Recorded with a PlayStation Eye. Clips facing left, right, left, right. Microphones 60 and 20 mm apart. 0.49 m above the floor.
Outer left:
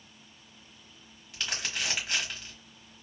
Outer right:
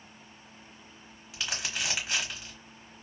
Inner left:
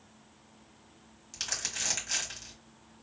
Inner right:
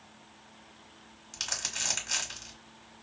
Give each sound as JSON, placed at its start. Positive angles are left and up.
{"t": 1.3, "sound": "crumpling", "side_deg": -5, "distance_m": 1.3}